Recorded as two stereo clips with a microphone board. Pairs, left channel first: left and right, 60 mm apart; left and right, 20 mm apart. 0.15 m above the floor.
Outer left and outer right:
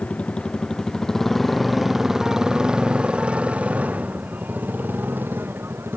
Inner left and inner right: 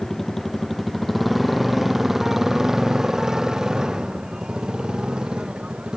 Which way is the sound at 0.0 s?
20° left (ahead or behind).